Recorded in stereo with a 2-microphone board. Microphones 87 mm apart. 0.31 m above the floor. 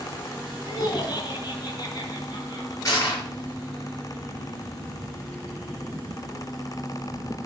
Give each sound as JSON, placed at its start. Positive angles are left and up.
{"t": 0.7, "sound": "laughter", "side_deg": 55, "distance_m": 3.0}
{"t": 2.9, "sound": "crushing", "side_deg": 40, "distance_m": 6.0}